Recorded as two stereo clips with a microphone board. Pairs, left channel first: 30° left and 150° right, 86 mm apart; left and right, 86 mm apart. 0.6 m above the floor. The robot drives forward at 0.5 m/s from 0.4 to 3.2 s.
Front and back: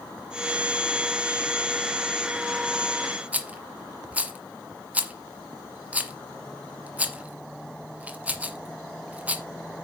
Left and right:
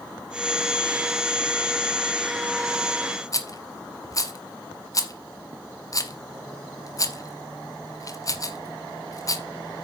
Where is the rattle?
135° left, 1.4 m.